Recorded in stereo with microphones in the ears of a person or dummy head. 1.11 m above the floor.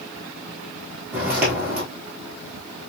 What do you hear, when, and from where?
1.1 s footsteps: 10° right (ahead or behind), 1.5 m